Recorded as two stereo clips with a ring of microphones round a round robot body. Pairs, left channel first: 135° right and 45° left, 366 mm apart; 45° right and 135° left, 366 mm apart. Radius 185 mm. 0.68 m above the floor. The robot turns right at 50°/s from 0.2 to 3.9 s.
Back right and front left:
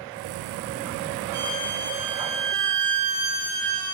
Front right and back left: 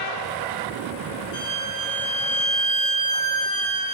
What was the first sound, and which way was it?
A violin, 90° right.